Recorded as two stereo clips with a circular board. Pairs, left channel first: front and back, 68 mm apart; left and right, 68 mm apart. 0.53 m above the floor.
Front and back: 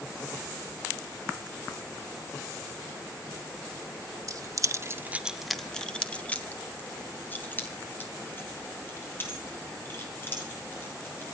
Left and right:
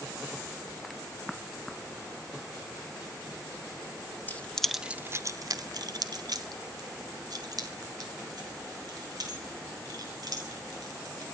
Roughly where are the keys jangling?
Behind left.